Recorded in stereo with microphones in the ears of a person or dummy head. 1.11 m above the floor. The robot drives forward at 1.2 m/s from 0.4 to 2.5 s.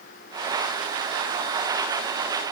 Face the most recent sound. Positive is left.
No sound to turn to.